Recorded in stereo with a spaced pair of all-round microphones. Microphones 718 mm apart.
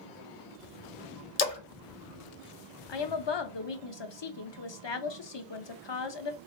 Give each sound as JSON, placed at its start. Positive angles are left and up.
{"t": 1.4, "sound": "a splash", "side_deg": 55, "distance_m": 0.6}
{"t": 2.9, "sound": "a woman speaking", "side_deg": 40, "distance_m": 0.5}